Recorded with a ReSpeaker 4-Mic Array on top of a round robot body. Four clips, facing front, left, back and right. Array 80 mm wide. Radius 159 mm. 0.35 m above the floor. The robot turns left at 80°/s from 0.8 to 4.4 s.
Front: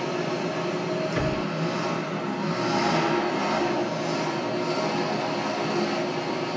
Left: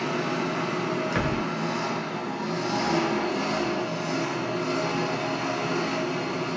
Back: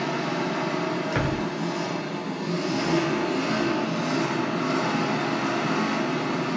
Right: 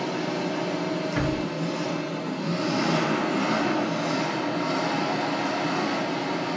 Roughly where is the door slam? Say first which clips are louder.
Even, even; behind left.